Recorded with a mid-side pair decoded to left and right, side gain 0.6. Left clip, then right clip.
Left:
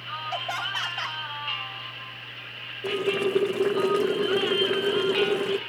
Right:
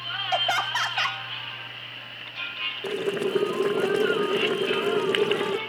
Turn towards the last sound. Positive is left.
turn(degrees=-10)